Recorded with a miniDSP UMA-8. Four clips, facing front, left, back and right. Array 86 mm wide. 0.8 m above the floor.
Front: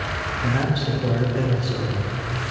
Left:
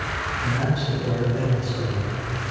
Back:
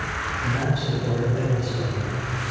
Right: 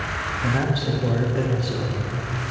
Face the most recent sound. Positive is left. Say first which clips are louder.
# right 3 dB, front 4 dB
turn(degrees=-55)